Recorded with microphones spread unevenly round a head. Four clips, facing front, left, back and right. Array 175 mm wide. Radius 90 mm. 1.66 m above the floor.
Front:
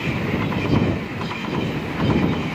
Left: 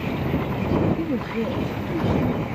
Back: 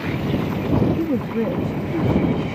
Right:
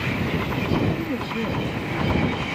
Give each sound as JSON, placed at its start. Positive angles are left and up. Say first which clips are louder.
{"t": 1.0, "sound": "a woman speaking", "louder": "left 2 dB, back 7 dB", "azimuth_deg": 170}